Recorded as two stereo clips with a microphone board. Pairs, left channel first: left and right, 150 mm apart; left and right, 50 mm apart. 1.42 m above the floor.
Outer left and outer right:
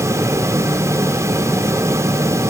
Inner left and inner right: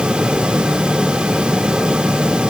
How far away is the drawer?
I don't hear a drawer.